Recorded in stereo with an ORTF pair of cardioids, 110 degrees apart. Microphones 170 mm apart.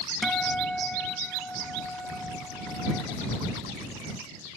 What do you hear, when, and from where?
0.2 s a guitar: 5° left